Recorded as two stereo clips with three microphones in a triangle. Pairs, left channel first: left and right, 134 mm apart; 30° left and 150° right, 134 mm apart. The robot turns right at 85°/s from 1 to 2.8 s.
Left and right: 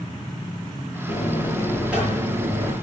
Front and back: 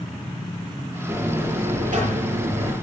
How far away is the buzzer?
About 7 m.